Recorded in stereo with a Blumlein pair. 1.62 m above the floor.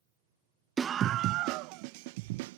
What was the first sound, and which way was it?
A scream, 15° right.